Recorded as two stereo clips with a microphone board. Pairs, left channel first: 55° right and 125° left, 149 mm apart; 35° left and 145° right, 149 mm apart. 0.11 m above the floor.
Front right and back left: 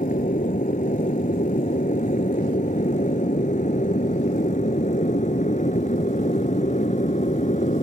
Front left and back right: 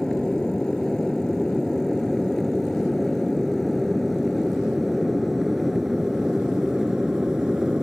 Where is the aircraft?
50° right; by 7.8 s 60° right.